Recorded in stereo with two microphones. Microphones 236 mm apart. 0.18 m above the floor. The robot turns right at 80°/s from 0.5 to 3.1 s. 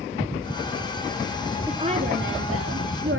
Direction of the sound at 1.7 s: 170° right.